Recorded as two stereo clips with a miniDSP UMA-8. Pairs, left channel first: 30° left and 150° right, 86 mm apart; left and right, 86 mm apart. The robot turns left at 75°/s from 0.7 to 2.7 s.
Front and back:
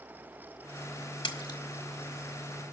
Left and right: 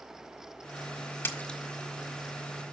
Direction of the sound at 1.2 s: 30° left.